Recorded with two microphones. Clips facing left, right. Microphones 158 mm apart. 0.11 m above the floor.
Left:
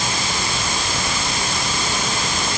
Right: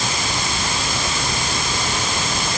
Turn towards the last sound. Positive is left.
No sound to turn to.